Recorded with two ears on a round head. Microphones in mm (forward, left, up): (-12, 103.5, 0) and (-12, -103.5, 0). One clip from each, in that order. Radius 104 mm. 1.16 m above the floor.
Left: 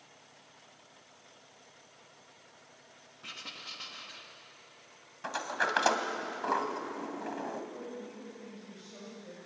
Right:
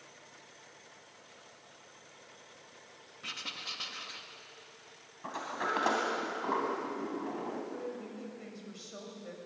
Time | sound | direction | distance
3.2 | writing | 10° right (ahead or behind) | 1.4 m
5.2 | a sliding door | 65° left (ahead or behind) | 2 m
7.7 | a woman speaking | 45° right (ahead or behind) | 6.5 m